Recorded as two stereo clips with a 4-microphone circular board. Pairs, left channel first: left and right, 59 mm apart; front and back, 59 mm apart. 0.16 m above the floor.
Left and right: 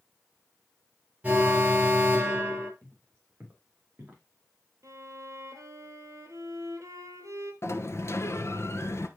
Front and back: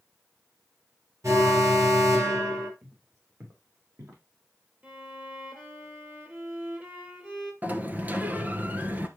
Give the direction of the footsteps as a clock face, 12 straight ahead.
5 o'clock.